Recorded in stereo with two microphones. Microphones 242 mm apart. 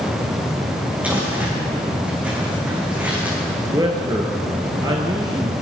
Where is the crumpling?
5° right (ahead or behind), 8.5 m.